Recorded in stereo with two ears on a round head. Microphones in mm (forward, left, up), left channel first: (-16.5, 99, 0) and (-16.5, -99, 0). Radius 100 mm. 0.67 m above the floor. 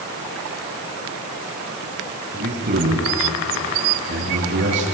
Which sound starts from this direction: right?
A man speaking, at 2.3 s.